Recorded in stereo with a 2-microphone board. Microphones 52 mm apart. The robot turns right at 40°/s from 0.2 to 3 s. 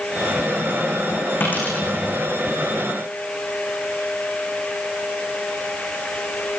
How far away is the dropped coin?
About 10 m.